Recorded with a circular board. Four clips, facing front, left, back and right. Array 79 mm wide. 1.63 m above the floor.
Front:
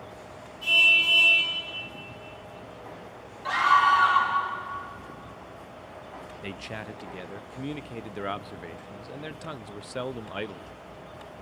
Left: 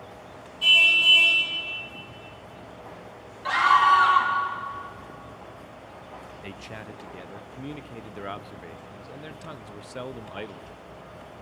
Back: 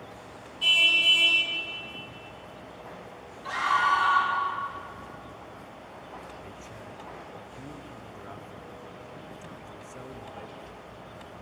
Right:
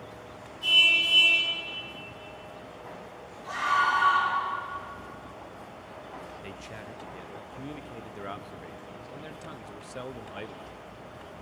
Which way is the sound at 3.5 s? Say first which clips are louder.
Left 7 dB, front 4 dB; 70° left.